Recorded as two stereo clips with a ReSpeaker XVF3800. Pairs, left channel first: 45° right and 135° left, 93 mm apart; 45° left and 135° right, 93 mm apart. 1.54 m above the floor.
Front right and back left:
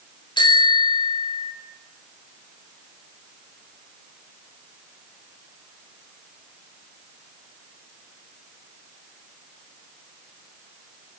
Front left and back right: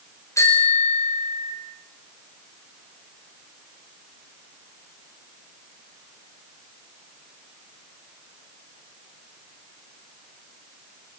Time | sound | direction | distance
0.4 | a bicycle bell | 10° right | 5.5 m